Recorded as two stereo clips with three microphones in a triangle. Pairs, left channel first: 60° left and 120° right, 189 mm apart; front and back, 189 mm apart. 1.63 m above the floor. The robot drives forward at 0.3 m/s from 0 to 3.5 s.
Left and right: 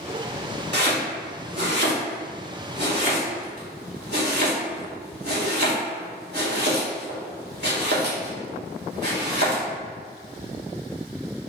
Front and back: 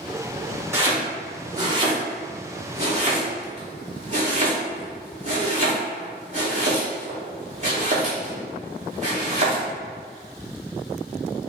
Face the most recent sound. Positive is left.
turn(degrees=-135)